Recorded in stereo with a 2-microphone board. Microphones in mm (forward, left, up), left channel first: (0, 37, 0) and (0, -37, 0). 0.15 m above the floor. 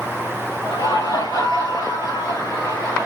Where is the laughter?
70° left (ahead or behind), 3.5 m.